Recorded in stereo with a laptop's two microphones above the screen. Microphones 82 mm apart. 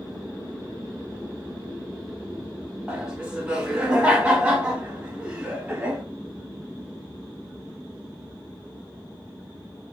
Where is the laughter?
10° right (ahead or behind), 1.9 m.